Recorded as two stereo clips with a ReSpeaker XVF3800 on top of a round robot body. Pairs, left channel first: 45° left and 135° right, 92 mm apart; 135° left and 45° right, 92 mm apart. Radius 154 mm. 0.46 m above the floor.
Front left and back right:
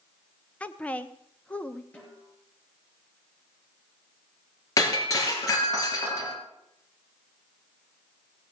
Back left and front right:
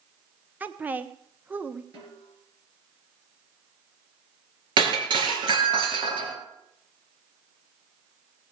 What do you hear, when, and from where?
0.6 s a woman speaking: 5° right, 1.0 m
1.9 s a snare drum: 25° right, 7 m
4.8 s breaking glass: 10° right, 3 m